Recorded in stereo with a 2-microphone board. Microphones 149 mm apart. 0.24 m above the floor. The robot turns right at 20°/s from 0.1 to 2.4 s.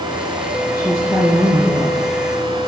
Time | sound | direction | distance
0.7 | a woman speaking | 20° right (ahead or behind) | 8 m